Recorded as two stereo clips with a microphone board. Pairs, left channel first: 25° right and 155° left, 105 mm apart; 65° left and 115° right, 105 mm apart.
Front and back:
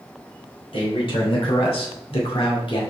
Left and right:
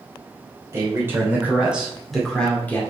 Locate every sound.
0.7 s a man speaking: 50° right, 3 m; by 2.8 s straight ahead, 2 m